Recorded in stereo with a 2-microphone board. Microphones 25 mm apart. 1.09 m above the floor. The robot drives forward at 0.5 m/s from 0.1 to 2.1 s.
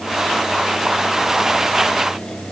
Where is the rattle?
No rattle in this recording.